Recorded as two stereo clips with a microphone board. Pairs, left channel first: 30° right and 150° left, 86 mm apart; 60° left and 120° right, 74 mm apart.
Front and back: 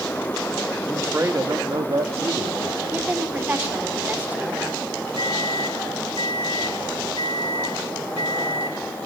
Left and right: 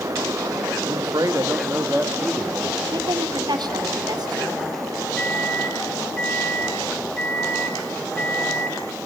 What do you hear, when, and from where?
0.8 s a man speaking: 135° right, 1.9 m; by 3.9 s 130° left, 4 m
2.9 s a woman speaking: 140° right, 2.5 m
5.2 s a microwave: 15° right, 3 m